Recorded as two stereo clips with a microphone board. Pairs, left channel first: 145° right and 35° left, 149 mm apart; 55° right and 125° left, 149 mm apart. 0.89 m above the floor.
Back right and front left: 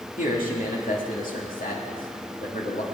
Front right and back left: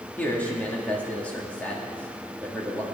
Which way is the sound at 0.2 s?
135° right.